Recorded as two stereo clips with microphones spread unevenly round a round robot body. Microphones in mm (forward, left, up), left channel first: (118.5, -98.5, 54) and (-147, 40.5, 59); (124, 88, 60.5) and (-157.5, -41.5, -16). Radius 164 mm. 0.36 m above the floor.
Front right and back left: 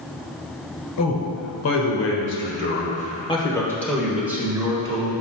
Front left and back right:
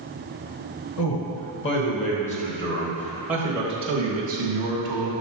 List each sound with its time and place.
1.0 s a man speaking: 25° right, 1.8 m; by 5.1 s 140° right, 1.7 m